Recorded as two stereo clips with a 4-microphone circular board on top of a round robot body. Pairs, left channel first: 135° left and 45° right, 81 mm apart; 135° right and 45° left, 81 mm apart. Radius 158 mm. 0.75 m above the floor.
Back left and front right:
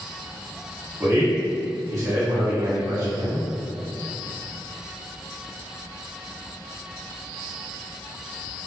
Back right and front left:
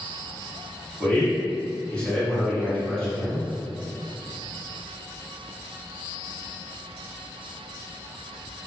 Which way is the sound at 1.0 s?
65° right.